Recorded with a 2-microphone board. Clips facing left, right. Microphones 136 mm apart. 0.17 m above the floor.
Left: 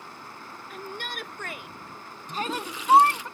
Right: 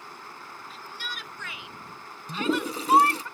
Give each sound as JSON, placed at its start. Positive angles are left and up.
{"t": 0.7, "sound": "a shout", "side_deg": 60}
{"t": 2.3, "sound": "a toilet flushing", "side_deg": -40}